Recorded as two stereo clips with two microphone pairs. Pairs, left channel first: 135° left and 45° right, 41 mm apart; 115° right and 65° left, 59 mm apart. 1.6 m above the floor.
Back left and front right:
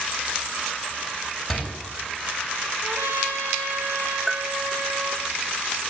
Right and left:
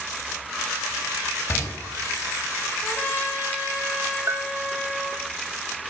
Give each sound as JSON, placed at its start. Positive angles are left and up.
{"t": 1.5, "sound": "a door slam", "azimuth_deg": -135, "distance_m": 8.0}
{"t": 2.8, "sound": "a trumpet", "azimuth_deg": -65, "distance_m": 4.0}
{"t": 4.3, "sound": "a bell", "azimuth_deg": 45, "distance_m": 0.7}